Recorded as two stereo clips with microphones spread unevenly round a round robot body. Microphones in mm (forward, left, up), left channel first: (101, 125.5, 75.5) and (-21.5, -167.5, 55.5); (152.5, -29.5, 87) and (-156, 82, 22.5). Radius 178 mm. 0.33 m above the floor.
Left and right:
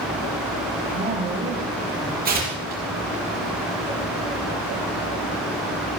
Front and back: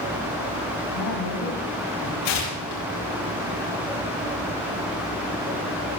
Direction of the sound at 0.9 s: 50° right.